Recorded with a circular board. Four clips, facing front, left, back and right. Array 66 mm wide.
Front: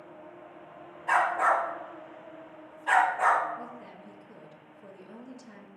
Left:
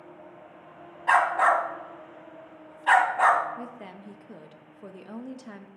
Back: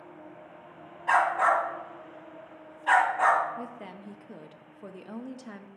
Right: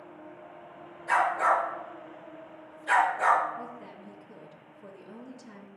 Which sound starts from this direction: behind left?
A woman speaking, at 3.6 s.